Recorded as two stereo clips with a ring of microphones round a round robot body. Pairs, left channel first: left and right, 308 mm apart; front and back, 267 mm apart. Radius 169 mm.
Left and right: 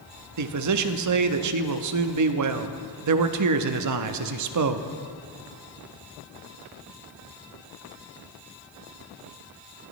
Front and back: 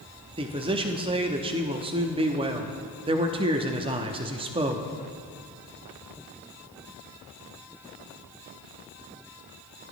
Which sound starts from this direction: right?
A man speaking, at 0.4 s.